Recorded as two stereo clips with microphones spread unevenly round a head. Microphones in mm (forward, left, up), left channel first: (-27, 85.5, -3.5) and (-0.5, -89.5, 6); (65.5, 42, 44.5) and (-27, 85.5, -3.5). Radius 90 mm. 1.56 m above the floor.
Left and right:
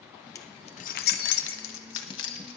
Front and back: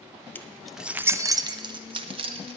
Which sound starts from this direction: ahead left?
Keys jangling, at 0.3 s.